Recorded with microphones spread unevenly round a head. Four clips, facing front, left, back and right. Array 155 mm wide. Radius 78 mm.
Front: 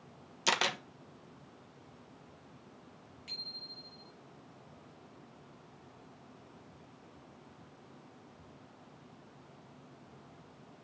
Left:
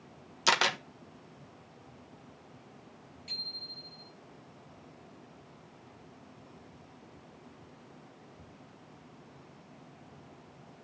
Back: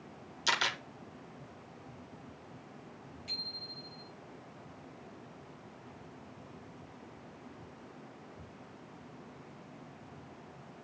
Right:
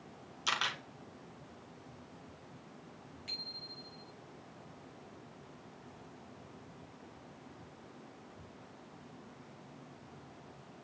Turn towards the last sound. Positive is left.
turn(degrees=-45)